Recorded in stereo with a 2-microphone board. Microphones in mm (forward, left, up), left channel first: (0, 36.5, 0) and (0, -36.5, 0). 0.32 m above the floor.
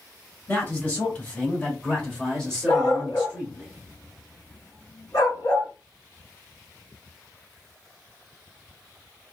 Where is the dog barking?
60° left (ahead or behind), 1.3 m.